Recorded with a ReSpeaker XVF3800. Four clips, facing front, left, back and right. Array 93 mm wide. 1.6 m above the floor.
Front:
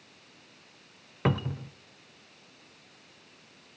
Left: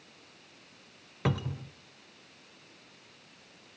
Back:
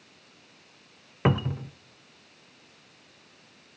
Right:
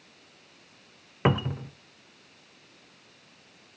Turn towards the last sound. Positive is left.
turn(degrees=-110)